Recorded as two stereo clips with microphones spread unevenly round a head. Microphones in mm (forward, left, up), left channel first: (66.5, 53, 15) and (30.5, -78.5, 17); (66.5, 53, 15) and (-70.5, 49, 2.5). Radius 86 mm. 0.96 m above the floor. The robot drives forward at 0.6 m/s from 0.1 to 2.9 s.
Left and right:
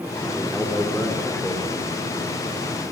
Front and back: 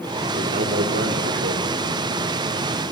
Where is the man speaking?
155° left, 2.5 m; by 1.8 s 160° left, 3.5 m.